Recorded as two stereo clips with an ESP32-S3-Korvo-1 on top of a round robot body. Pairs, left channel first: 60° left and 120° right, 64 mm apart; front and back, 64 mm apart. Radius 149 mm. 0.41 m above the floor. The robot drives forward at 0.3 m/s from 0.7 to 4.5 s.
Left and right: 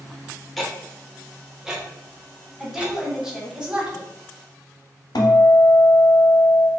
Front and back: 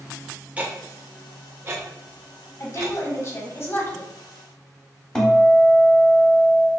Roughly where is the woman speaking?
Ahead right.